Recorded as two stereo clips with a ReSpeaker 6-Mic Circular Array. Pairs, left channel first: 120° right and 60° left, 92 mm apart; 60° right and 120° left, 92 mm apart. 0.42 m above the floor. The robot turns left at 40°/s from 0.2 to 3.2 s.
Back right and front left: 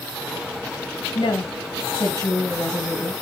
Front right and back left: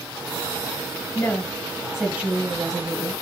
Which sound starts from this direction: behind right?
A woman speaking, at 1.1 s.